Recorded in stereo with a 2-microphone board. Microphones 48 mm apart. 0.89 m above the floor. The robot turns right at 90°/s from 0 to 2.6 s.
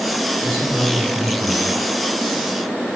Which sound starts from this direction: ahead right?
A man speaking, at 0.4 s.